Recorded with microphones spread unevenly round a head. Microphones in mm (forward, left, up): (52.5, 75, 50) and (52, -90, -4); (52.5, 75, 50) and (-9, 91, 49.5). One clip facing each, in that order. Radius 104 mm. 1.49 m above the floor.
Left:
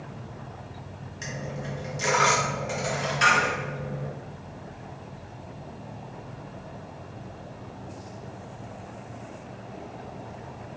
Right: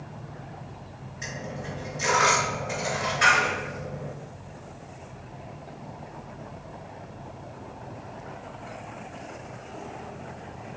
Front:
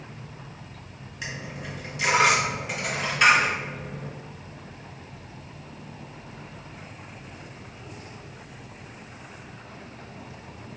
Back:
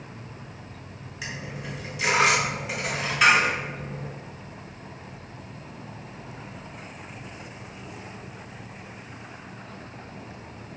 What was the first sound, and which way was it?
A dropped coin, 80° left.